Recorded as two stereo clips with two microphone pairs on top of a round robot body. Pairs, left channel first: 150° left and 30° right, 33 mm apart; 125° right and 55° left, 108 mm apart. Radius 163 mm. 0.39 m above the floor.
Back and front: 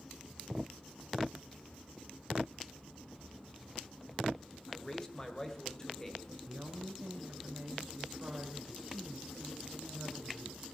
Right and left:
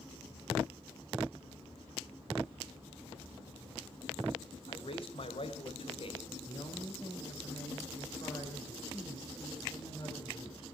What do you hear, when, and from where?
4.7 s a man speaking: 140° right, 2 m
6.5 s a woman speaking: 75° right, 3.5 m